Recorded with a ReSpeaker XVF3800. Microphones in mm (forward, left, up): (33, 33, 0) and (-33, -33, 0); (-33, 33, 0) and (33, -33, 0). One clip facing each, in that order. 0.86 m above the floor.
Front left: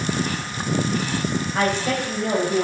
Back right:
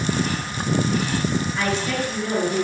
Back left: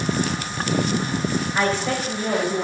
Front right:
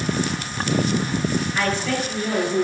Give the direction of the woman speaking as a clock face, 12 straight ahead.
10 o'clock.